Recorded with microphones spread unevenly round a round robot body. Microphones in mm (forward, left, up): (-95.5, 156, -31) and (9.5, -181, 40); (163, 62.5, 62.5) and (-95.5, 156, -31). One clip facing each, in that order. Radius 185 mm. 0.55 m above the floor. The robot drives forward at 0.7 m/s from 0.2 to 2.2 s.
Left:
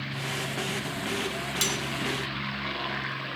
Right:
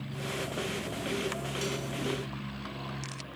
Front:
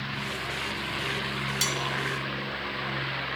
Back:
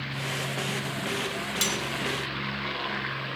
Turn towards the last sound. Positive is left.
turn(degrees=105)